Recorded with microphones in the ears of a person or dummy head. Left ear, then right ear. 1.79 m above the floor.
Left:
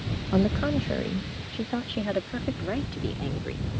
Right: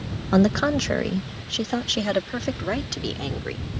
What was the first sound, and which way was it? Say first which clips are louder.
A woman speaking: right 6 dB; 70° right (ahead or behind).